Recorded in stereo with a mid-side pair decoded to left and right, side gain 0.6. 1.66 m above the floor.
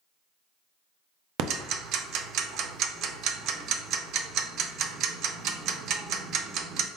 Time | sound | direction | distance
1.4 | ticking | 60° right | 0.5 m